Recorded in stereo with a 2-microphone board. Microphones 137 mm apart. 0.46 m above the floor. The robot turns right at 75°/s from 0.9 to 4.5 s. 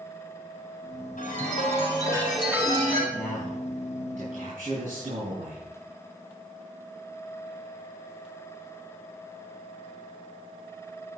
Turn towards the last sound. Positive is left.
turn(degrees=-85)